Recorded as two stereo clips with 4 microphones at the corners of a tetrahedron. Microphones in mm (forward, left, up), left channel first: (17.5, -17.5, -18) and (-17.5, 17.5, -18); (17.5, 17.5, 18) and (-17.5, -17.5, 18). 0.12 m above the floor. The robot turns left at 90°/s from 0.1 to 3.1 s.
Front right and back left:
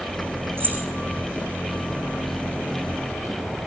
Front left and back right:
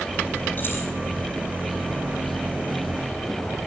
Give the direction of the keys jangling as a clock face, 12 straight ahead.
9 o'clock.